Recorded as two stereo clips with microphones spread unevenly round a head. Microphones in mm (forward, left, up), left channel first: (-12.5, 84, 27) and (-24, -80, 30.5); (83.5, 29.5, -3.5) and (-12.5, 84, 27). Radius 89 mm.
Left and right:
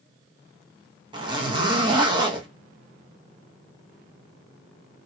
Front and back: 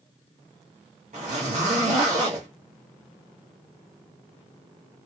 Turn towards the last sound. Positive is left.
turn(degrees=-160)